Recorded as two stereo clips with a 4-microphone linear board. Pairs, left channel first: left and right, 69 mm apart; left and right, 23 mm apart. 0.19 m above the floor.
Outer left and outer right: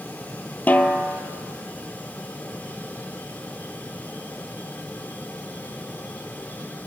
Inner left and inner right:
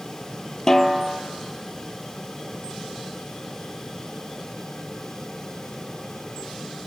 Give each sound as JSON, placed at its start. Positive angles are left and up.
{"t": 0.7, "sound": "a snare drum", "side_deg": 25, "distance_m": 1.1}